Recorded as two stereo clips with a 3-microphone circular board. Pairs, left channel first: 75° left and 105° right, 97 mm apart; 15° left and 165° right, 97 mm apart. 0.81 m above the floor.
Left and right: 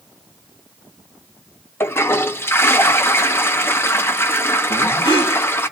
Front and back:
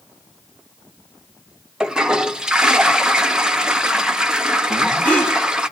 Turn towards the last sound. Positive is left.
turn(degrees=90)